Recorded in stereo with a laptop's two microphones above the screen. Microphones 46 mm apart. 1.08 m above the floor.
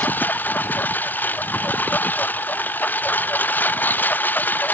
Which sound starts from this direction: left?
A lawn mower, at 0.0 s.